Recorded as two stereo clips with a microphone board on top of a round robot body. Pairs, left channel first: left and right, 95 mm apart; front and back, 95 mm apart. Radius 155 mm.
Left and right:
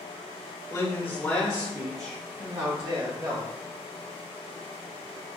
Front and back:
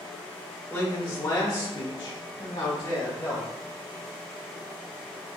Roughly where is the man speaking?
Ahead left.